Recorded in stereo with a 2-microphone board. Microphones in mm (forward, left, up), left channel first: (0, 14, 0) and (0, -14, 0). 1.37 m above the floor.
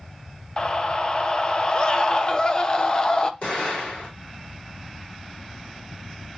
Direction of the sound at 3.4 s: 65° left (ahead or behind).